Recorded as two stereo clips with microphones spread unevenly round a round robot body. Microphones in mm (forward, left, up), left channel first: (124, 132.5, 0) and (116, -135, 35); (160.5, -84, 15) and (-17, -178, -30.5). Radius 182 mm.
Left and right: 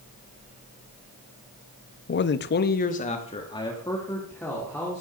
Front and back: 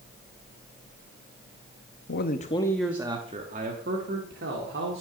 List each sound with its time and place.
2.1 s a man speaking: 70° left, 0.6 m; by 5.0 s 175° left, 1.8 m